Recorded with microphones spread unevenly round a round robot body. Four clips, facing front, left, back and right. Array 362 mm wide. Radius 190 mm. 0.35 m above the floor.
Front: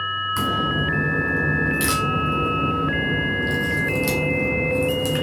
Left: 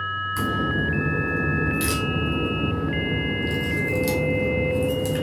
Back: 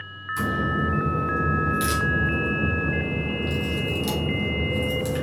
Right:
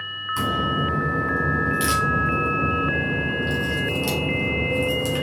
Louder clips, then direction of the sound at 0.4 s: Right 2 dB, even; 25° right.